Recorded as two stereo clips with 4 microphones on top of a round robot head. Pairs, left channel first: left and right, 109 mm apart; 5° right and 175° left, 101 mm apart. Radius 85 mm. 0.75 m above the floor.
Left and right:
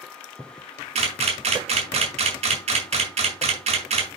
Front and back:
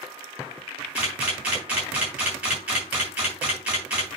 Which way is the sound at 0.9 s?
100° right.